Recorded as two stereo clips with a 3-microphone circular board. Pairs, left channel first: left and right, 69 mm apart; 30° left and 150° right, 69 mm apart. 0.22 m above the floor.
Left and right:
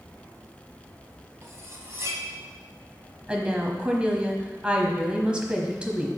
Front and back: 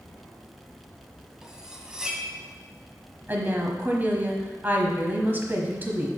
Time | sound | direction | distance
1.4 | cutlery clinking | 75° right | 1.0 m
3.3 | a woman speaking | 145° right | 1.0 m